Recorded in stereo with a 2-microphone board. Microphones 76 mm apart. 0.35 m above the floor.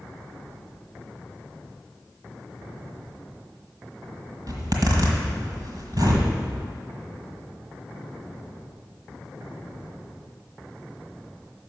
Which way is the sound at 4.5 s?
60° right (ahead or behind).